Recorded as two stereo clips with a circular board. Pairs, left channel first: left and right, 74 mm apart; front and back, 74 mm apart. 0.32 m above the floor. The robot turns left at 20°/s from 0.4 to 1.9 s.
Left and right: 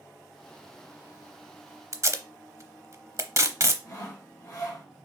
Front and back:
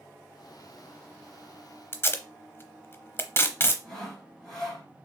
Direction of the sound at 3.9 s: 80° left.